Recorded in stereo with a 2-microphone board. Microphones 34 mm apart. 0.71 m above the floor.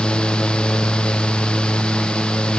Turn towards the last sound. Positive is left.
No sound to turn to.